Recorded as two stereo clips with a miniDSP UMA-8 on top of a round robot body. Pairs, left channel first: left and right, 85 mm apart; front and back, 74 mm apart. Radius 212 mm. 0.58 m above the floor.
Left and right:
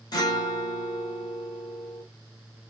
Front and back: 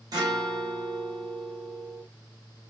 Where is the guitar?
135° left, 1.1 m.